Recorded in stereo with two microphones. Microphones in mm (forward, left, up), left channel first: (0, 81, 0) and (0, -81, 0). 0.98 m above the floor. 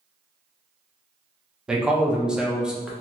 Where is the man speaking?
5° right (ahead or behind), 0.6 m.